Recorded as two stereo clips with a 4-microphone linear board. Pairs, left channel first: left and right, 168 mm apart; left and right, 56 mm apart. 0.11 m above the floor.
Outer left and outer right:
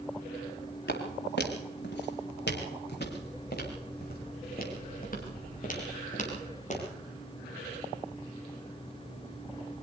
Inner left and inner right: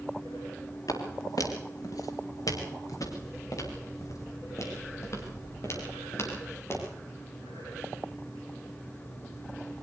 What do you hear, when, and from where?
0.9 s footsteps: 85° left, 5 m; by 6.8 s 45° left (ahead or behind), 8 m